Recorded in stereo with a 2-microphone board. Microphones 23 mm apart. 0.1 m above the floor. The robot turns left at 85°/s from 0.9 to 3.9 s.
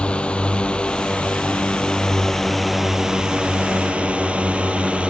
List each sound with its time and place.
0.0 s a drone: 55° left (ahead or behind); by 5.1 s 60° right (ahead or behind)